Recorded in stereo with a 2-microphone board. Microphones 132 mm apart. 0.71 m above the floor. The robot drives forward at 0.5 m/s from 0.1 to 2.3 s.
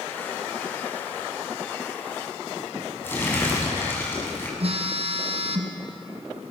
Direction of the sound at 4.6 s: 55° right (ahead or behind).